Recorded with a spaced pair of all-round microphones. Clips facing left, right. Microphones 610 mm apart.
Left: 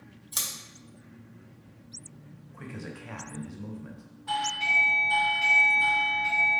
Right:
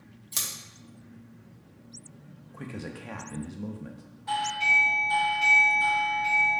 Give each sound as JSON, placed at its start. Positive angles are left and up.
{"t": 0.3, "sound": "scissors", "side_deg": -50, "distance_m": 1.0}
{"t": 2.5, "sound": "a man speaking", "side_deg": -65, "distance_m": 0.5}
{"t": 4.3, "sound": "a doorbell", "side_deg": -45, "distance_m": 1.3}